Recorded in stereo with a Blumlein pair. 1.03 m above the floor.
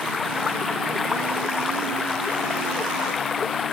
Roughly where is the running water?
Ahead.